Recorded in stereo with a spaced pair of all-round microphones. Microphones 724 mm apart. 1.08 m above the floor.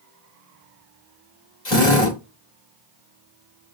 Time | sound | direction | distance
1.6 | a drill | 65° left (ahead or behind) | 2 m